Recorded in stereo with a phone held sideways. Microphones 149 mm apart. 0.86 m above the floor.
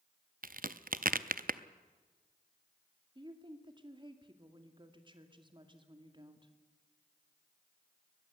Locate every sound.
0.4 s a crack: 70° right (ahead or behind), 0.6 m
3.1 s a woman speaking: 30° right (ahead or behind), 2.0 m